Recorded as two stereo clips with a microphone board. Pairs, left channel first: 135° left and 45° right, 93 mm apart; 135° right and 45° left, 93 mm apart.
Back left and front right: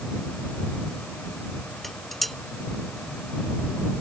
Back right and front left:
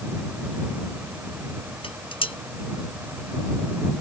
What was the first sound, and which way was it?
Dishes clattering, 140° right.